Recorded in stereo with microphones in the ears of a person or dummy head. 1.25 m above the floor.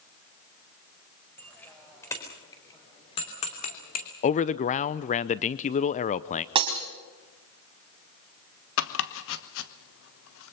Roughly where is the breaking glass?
Right.